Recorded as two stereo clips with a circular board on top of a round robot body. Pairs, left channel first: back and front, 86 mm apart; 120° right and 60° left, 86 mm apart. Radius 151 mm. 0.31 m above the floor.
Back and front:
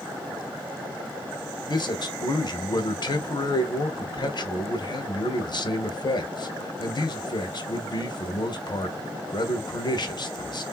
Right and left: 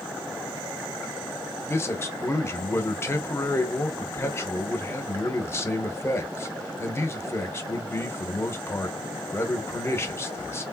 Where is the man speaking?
175° right, 1.3 m.